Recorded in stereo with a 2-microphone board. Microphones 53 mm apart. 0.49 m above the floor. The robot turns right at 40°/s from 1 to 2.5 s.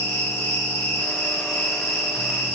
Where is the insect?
75° left, 1.5 m; by 2.6 s 135° left, 1.5 m.